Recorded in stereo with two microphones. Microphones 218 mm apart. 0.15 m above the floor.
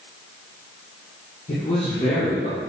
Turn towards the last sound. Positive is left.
turn(degrees=35)  # may be behind; listen again after turning